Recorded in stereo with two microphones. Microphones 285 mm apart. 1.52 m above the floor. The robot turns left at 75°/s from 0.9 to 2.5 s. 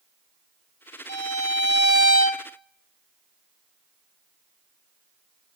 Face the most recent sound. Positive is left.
turn(degrees=35)